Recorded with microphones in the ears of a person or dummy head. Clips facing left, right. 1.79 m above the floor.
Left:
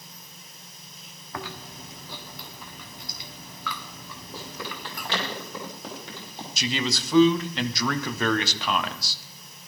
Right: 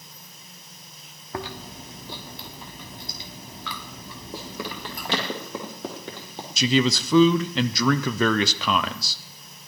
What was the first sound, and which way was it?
Chewing, 30° right (ahead or behind).